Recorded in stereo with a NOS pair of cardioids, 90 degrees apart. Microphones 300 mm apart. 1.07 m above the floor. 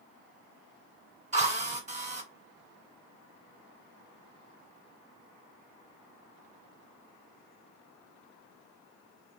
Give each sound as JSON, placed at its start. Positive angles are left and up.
{"t": 1.3, "sound": "a drill", "azimuth_deg": -20, "distance_m": 1.5}